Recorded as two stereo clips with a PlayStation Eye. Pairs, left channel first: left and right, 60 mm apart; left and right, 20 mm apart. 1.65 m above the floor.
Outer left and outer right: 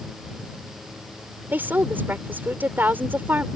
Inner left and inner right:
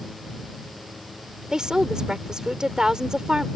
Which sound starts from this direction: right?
A woman speaking, at 1.5 s.